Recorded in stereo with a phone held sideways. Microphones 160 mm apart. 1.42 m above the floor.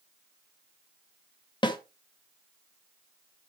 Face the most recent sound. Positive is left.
turn(degrees=30)  # may be behind; listen again after turning